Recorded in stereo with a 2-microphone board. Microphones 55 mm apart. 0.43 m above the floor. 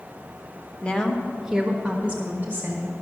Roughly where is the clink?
I don't hear a clink.